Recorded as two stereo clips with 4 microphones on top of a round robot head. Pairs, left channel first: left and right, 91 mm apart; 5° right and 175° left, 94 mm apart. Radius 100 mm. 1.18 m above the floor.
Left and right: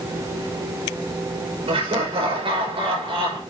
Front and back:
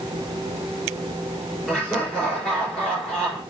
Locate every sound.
1.7 s laughter: 90° right, 4.5 m